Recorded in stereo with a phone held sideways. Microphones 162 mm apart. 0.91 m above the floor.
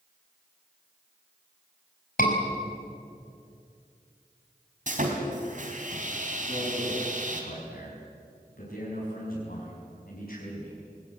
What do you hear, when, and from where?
2.2 s a scream: 65° left (ahead or behind), 5 m
4.9 s sawing: 55° right (ahead or behind), 3 m
6.4 s a man speaking: 75° left (ahead or behind), 6 m